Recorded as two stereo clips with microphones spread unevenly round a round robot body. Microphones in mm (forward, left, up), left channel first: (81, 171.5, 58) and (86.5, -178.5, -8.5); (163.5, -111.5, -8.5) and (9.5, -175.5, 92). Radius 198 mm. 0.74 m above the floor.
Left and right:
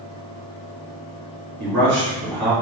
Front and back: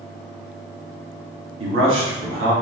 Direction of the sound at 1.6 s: 175° right.